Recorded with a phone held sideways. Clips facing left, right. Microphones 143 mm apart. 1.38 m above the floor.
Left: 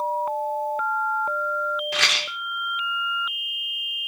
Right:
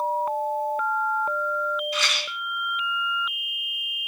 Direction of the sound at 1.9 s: 75° left (ahead or behind).